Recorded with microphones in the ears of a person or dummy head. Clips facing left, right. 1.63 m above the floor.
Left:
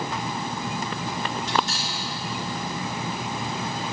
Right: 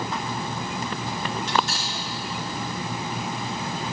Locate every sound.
1.5 s cutlery clinking: 40° right (ahead or behind), 1.5 m